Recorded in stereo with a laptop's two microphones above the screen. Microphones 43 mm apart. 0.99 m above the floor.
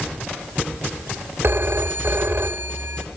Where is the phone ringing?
65° right (ahead or behind), 1.2 m.